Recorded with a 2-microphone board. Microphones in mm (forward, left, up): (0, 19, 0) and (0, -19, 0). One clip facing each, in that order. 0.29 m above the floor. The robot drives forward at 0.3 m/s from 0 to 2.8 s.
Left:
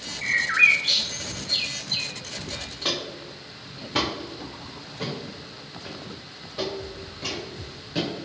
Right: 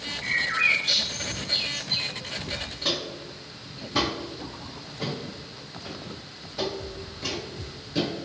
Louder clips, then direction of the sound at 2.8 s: Left 1 dB; 50° left (ahead or behind).